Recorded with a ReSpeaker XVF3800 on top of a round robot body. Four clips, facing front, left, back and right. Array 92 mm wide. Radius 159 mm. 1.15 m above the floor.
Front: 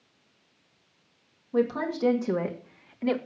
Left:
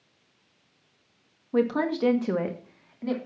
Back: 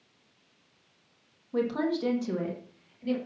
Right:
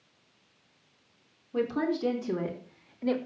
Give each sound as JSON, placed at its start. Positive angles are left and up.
{"t": 1.5, "sound": "a woman speaking", "azimuth_deg": 85, "distance_m": 2.5}